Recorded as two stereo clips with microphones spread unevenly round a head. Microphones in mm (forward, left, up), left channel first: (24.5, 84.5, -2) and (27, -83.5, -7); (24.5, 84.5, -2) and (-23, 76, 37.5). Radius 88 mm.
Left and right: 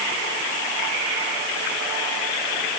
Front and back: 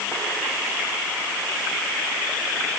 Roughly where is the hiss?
No hiss in this recording.